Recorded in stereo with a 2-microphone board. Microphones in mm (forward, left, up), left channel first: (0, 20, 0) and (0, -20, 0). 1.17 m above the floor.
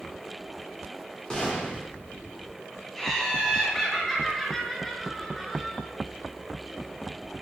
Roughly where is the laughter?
Centre.